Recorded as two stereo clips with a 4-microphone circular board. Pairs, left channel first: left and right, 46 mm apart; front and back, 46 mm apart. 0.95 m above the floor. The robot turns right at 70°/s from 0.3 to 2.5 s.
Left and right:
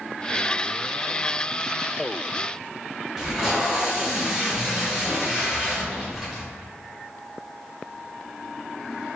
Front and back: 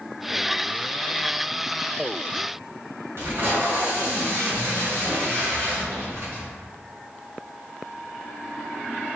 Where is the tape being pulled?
170° right, 1.8 m.